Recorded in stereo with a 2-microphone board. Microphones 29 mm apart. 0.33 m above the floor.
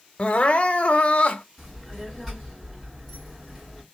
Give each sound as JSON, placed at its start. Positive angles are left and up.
{"t": 0.2, "sound": "crying", "side_deg": 45, "distance_m": 0.6}
{"t": 1.6, "sound": "a child speaking", "side_deg": -5, "distance_m": 2.5}